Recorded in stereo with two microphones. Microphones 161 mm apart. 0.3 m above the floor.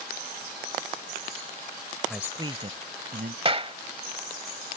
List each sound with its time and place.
2.1 s a man speaking: 5° left (ahead or behind); by 3.4 s 65° right (ahead or behind)
3.5 s a clap: 35° right (ahead or behind)